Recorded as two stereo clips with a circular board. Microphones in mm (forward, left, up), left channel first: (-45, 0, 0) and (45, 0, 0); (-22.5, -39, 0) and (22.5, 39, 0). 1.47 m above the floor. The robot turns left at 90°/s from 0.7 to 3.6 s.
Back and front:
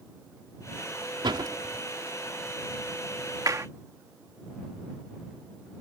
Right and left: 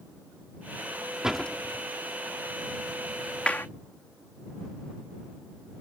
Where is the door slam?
20° right; by 1.9 s 75° right.